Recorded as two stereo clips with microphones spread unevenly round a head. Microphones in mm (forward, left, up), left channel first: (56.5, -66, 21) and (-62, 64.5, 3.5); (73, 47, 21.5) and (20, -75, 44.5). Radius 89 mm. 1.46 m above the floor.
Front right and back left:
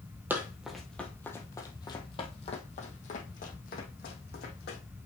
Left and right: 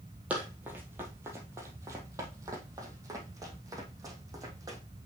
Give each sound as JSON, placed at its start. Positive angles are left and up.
{"t": 0.3, "sound": "running footsteps", "azimuth_deg": -150, "distance_m": 1.5}